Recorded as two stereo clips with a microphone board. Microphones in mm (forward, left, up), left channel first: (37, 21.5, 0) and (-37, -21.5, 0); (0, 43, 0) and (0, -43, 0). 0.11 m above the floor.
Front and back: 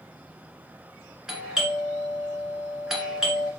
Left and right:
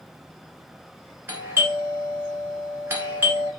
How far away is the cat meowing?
I don't hear a cat meowing.